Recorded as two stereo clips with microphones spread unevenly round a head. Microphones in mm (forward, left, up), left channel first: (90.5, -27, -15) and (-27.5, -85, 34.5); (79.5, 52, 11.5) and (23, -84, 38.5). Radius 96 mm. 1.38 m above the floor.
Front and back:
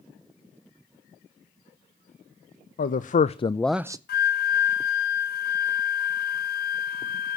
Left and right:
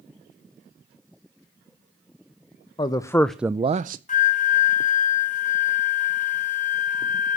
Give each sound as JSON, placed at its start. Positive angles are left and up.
{"t": 2.8, "sound": "a man speaking", "azimuth_deg": 5, "distance_m": 1.0}
{"t": 4.1, "sound": "a flute", "azimuth_deg": 30, "distance_m": 1.7}